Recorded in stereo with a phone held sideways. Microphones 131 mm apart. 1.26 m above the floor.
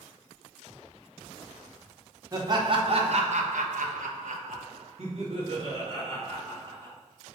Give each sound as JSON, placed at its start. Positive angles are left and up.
{"t": 2.3, "sound": "laughter", "side_deg": -30, "distance_m": 1.7}